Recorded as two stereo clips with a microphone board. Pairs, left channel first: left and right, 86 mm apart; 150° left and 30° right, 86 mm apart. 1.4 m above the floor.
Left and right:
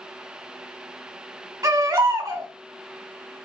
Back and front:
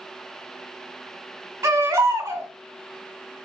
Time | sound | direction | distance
1.6 | a baby crying | 70° right | 1.5 m